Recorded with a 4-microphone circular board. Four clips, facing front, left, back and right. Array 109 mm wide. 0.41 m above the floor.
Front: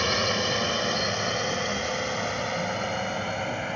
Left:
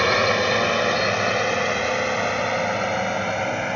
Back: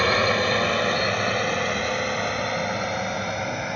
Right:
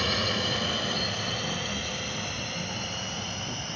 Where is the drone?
120° left; by 3.8 s 95° left.